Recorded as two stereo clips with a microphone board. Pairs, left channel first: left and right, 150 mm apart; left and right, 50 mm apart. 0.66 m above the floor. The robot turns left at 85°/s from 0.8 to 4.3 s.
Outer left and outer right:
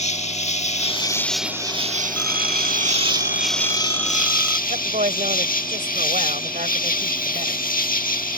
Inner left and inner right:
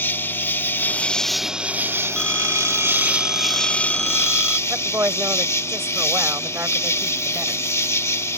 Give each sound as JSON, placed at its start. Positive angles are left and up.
{"t": 0.0, "sound": "an insect", "azimuth_deg": 50}
{"t": 2.2, "sound": "a phone ringing", "azimuth_deg": 165}
{"t": 4.7, "sound": "a woman speaking", "side_deg": -60}